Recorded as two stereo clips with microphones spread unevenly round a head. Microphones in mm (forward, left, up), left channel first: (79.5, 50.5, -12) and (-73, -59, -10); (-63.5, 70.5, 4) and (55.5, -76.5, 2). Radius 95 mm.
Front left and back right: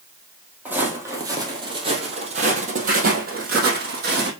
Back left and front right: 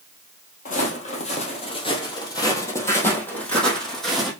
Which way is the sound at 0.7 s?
140° left.